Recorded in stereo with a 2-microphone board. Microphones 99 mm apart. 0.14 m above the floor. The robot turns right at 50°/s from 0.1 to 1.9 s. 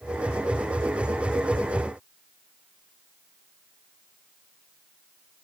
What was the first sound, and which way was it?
Only background noise.